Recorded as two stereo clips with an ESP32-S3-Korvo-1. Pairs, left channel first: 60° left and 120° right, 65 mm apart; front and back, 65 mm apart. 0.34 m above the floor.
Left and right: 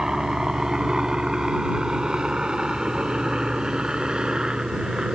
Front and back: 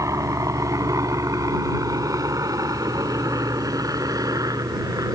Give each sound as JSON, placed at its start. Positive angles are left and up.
{"t": 0.0, "sound": "a helicopter", "azimuth_deg": 160}